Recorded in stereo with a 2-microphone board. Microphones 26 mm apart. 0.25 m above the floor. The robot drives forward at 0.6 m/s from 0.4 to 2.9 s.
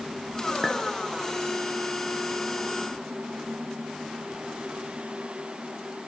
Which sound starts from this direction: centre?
A clink, at 0.6 s.